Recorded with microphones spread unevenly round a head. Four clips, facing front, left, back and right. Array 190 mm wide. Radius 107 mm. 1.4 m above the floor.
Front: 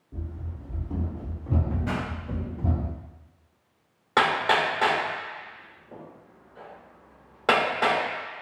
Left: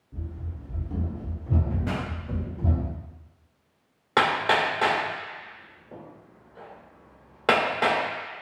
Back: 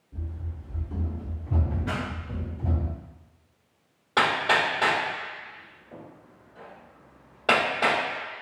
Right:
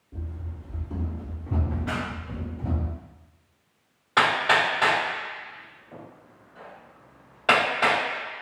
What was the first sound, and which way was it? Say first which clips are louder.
Running footsteps: even, front 2 dB; 10° right.